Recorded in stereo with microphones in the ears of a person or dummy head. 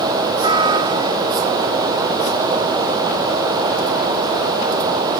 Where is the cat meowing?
30° right (ahead or behind).